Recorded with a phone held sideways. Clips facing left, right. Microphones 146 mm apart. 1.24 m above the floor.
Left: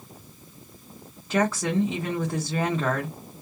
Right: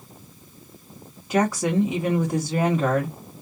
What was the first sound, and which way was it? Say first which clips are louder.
A woman speaking: right 2 dB; 15° right (ahead or behind).